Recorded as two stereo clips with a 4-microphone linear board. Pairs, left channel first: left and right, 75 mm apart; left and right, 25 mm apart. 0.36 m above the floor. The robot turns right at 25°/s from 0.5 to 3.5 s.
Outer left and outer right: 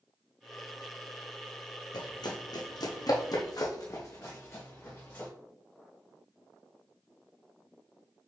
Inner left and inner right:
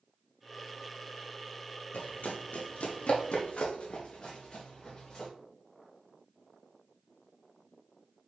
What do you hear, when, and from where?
1.9 s running footsteps: 70° left (ahead or behind), 0.9 m; by 5.3 s 30° left (ahead or behind), 1.8 m